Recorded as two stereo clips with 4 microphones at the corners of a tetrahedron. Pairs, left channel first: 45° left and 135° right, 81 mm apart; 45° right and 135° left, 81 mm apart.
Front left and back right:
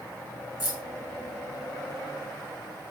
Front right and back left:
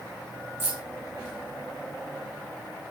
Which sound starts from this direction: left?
Keys jangling, at 0.6 s.